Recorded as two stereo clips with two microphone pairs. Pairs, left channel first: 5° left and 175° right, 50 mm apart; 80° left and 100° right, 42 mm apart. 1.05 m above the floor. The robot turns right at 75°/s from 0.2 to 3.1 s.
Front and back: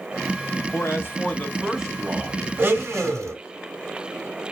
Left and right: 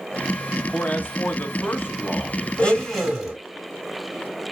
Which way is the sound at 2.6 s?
140° left.